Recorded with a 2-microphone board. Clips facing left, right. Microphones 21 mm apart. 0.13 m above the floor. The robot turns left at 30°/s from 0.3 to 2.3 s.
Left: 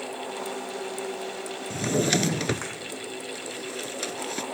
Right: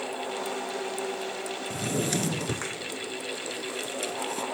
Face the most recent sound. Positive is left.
turn(degrees=55)  # may be behind; listen again after turning